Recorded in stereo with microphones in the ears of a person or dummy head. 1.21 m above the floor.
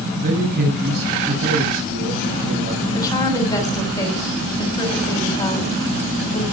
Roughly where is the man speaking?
Right.